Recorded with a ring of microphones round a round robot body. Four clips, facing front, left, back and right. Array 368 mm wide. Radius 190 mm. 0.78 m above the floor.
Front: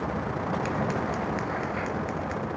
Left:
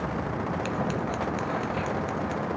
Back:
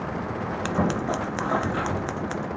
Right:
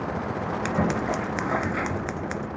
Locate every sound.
0.7 s scissors: 150° right, 0.6 m